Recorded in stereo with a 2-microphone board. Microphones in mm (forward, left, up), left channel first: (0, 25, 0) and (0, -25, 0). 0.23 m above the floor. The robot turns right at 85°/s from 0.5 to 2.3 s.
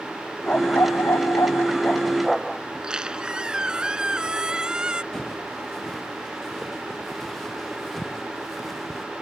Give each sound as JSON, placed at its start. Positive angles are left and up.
{"t": 0.5, "sound": "a dog barking", "azimuth_deg": 30}
{"t": 2.7, "sound": "a squeak", "side_deg": -15}
{"t": 5.1, "sound": "footsteps", "side_deg": 10}